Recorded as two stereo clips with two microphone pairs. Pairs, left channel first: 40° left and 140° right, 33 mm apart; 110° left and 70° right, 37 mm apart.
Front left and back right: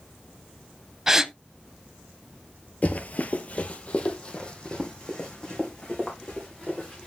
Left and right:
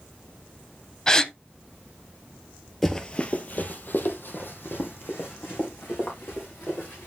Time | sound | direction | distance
1.1 | a gasp | 160° left | 0.6 m
2.8 | running footsteps | 35° left | 1.0 m